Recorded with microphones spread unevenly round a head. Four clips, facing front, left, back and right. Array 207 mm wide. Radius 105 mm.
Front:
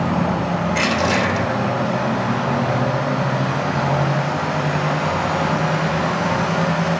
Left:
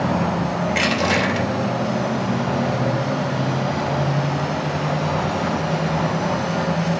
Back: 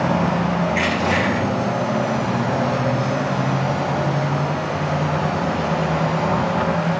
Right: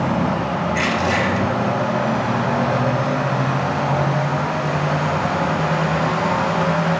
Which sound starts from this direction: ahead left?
Crushing, at 0.7 s.